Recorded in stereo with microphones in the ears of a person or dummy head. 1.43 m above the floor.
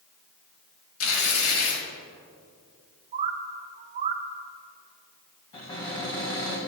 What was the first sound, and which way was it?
Tearing paper, 85° left.